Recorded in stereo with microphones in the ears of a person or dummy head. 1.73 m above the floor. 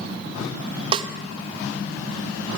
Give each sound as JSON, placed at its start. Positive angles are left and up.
{"t": 0.9, "sound": "a snare drum", "side_deg": -30, "distance_m": 0.7}